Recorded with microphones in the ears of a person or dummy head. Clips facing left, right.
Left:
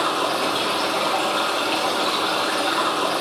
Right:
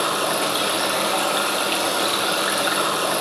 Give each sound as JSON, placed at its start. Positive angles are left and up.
{"t": 0.0, "sound": "running water", "side_deg": -20, "distance_m": 1.0}